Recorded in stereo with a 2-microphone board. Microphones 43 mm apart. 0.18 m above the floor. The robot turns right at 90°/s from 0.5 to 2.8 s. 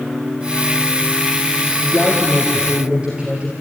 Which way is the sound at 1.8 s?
115° left.